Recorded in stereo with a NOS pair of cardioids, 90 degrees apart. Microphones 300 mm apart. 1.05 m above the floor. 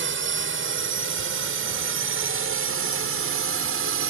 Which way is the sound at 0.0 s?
45° right.